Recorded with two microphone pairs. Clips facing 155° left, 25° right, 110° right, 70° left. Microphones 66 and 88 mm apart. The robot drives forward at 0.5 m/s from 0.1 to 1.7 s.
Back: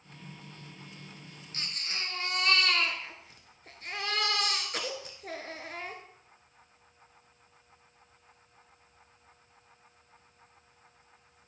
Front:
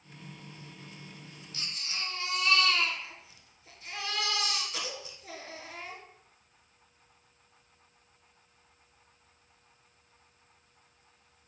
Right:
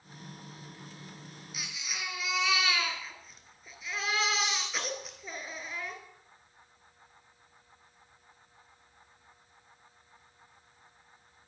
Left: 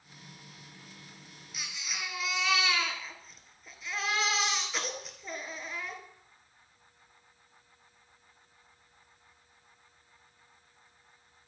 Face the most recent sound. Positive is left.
turn(degrees=165)